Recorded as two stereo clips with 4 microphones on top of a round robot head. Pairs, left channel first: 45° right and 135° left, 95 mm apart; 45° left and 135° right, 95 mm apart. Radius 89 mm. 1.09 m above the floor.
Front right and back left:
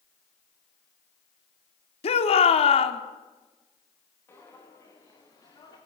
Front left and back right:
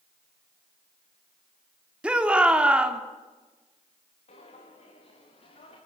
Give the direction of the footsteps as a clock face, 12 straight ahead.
11 o'clock.